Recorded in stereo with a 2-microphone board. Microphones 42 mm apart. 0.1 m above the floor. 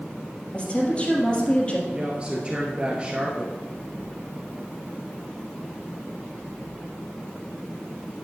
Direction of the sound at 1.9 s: 25° right (ahead or behind).